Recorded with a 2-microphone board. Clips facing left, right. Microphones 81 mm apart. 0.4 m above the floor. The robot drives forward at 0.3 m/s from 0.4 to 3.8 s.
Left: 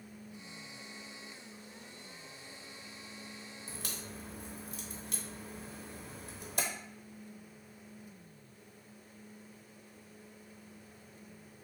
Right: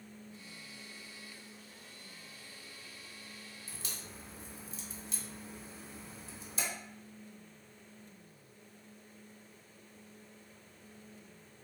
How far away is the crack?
About 0.6 m.